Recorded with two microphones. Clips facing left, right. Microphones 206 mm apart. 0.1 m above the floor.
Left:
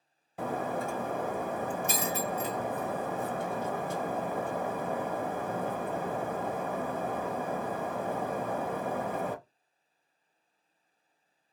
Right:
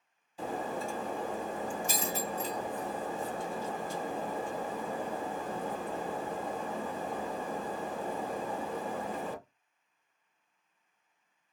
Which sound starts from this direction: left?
Breaking glass, at 0.4 s.